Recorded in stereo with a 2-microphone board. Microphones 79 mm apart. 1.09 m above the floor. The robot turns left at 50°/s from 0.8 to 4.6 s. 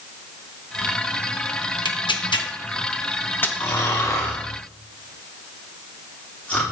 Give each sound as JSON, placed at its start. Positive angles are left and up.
{"t": 1.9, "sound": "tearing paper", "side_deg": 75, "distance_m": 0.9}
{"t": 3.6, "sound": "snoring", "side_deg": 65, "distance_m": 3.0}